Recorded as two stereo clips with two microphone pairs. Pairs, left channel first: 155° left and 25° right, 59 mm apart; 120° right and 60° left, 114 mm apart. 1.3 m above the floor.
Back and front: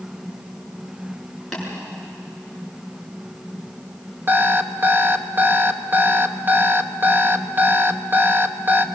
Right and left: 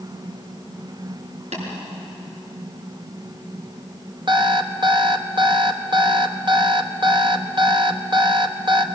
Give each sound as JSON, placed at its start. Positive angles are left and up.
{"t": 1.5, "sound": "tapping", "azimuth_deg": 65, "distance_m": 7.0}
{"t": 4.3, "sound": "an alarm clock", "azimuth_deg": 20, "distance_m": 0.9}